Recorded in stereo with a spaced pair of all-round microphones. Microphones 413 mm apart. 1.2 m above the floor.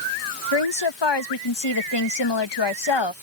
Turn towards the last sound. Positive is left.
turn(degrees=80)